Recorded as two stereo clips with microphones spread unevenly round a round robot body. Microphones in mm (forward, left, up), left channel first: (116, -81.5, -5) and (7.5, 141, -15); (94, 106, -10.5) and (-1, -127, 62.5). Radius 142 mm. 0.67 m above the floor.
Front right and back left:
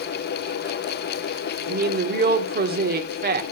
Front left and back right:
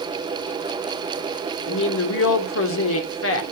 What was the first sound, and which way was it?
A woman speaking, 70° left.